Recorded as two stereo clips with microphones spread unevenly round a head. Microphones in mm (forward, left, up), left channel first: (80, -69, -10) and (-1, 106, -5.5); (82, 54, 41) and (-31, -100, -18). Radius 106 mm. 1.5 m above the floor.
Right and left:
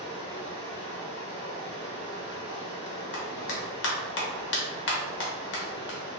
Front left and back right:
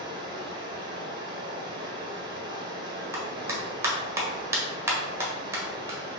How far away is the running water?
About 1.1 m.